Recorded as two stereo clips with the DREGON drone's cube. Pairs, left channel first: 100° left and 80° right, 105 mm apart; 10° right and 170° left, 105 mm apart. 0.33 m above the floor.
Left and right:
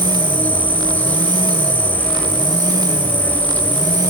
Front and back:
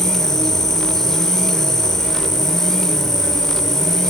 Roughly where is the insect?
Ahead left.